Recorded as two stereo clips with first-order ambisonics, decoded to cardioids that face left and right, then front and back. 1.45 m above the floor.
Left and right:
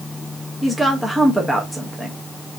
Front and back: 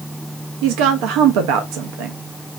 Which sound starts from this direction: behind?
A woman speaking, at 0.6 s.